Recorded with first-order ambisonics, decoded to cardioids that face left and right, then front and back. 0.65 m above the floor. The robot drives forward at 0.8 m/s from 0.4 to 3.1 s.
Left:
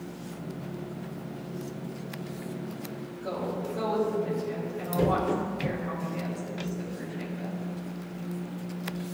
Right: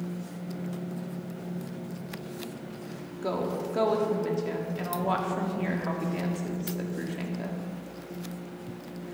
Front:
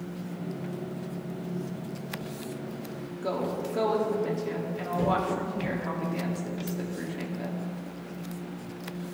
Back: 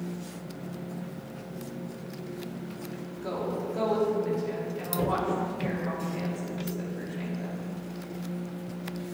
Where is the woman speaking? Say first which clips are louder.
Right 3 dB, front 2 dB; 65° right, 1.5 m.